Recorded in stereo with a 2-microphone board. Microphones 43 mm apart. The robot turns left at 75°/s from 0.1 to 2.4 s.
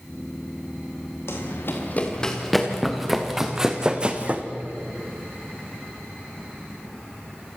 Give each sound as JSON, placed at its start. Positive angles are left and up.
{"t": 1.3, "sound": "running footsteps", "side_deg": 80, "distance_m": 5.5}